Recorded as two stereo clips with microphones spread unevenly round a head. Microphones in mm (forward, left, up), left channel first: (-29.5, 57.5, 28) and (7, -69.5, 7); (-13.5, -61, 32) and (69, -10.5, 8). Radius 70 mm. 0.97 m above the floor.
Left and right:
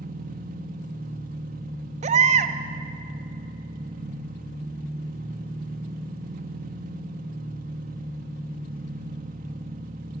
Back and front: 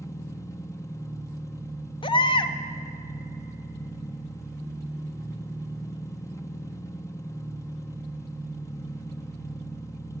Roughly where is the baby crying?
Right.